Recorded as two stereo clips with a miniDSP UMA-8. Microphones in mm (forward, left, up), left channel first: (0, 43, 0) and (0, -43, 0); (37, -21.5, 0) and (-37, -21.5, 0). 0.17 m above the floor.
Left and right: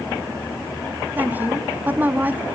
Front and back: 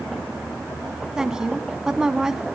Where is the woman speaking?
110° right, 1.2 m.